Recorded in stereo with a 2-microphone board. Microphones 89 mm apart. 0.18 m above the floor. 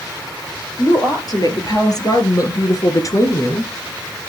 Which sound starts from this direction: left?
A woman speaking, at 0.8 s.